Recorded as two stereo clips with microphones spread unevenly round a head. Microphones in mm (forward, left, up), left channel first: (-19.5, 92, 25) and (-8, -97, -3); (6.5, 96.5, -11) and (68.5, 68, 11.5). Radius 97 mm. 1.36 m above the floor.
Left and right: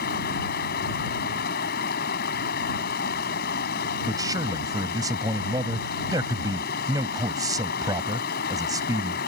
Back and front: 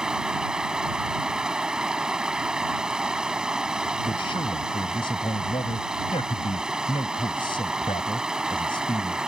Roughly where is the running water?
Ahead left.